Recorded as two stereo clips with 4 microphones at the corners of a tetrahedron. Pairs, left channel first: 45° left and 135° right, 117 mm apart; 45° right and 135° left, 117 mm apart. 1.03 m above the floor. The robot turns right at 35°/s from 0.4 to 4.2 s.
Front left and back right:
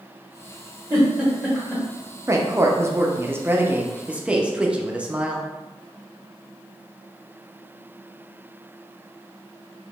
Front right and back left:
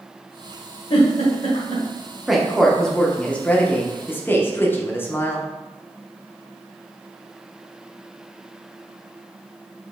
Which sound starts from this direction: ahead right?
A giggle, at 0.9 s.